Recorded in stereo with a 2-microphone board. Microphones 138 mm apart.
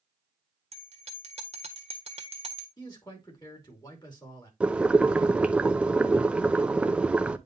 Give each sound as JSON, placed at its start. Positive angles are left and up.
{"t": 0.7, "sound": "a bell", "side_deg": -50, "distance_m": 1.3}
{"t": 2.8, "sound": "a man speaking", "side_deg": 30, "distance_m": 3.0}
{"t": 4.6, "sound": "boiling", "side_deg": -10, "distance_m": 0.7}